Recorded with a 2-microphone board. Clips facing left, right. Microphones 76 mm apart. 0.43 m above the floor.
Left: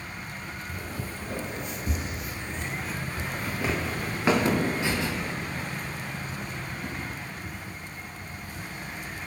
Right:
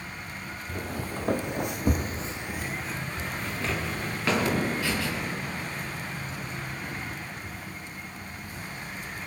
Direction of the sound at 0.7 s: 55° right (ahead or behind).